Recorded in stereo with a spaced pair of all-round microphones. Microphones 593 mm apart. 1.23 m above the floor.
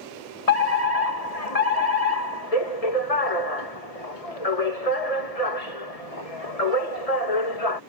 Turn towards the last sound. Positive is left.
turn(degrees=70)  # may be behind; listen again after turning